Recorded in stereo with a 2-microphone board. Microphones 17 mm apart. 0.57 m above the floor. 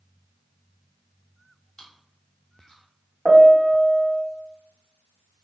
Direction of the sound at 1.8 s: 35° left (ahead or behind).